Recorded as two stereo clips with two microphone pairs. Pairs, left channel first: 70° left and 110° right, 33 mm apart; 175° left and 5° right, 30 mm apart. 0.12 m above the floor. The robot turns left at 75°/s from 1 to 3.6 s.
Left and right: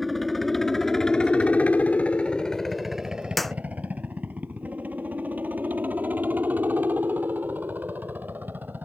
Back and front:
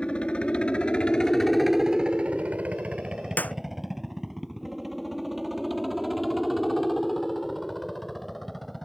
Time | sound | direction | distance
0.0 | a helicopter | 155° left | ?
3.4 | a clap | 160° left | ?